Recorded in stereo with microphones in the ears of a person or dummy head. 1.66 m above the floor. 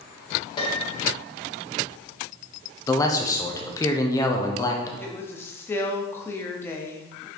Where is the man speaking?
20° left (ahead or behind), 0.7 m.